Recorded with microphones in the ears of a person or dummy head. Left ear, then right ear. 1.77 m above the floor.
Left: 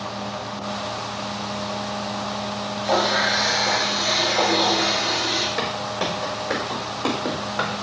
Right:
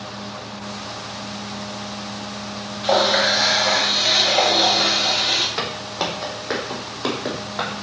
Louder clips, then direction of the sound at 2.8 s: Right 3 dB; 50° right (ahead or behind).